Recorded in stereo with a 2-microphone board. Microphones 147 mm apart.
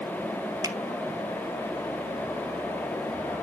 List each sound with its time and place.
0.6 s a finger snap: 30° right (ahead or behind), 0.9 m